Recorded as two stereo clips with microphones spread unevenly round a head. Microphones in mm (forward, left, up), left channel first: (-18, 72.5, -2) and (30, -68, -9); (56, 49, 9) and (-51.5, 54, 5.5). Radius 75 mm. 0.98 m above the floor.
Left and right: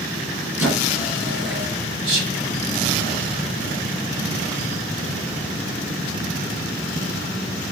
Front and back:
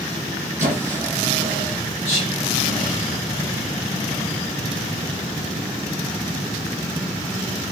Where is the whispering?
60° right, 1.2 m.